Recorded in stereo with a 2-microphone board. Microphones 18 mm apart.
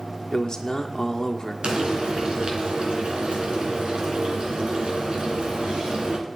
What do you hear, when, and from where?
0.3 s a man speaking: 40° left (ahead or behind), 1.5 m
1.6 s frying: 70° right (ahead or behind), 3 m